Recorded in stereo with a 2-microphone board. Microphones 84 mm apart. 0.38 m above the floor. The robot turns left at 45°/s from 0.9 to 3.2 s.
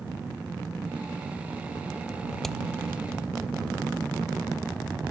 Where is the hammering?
Centre (ahead or behind); by 2.6 s 10° left (ahead or behind).